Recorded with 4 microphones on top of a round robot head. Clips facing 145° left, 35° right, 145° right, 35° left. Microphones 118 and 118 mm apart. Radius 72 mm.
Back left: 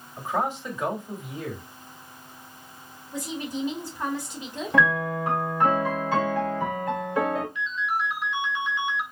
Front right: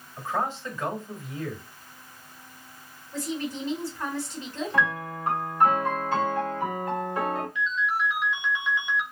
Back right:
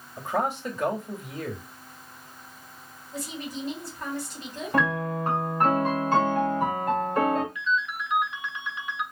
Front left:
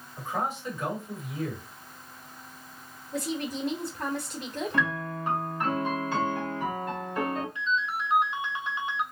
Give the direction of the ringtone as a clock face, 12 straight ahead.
1 o'clock.